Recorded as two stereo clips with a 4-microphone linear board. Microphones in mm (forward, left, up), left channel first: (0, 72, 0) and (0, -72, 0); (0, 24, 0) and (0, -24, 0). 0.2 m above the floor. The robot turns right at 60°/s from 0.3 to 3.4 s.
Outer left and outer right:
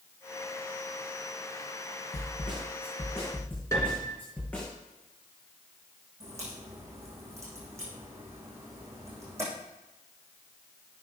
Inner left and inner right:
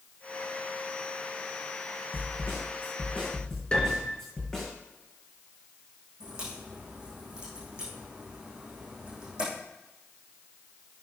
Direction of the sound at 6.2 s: 20° right (ahead or behind).